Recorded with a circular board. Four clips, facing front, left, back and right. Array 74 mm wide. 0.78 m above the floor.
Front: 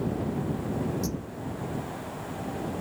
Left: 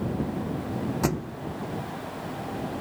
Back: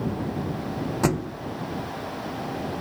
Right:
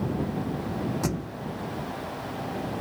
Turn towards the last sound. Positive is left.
turn(degrees=165)